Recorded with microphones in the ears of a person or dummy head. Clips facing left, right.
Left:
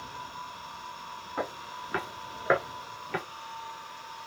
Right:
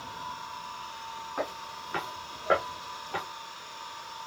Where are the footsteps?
25° left (ahead or behind), 4.5 m.